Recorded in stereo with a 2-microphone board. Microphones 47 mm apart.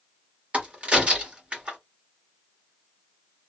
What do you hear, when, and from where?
0.5 s a crack: 30° right (ahead or behind), 1.4 m